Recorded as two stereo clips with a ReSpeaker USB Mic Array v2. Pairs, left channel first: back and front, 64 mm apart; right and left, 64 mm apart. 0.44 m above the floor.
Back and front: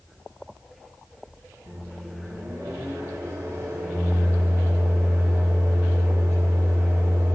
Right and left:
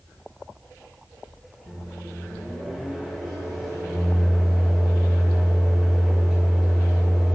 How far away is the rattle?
No rattle in this recording.